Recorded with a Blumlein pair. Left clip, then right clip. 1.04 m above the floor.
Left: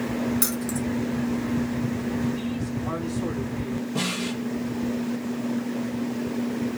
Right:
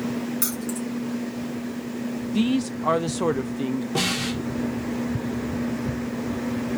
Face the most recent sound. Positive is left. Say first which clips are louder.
# right 4 dB
turn(degrees=-35)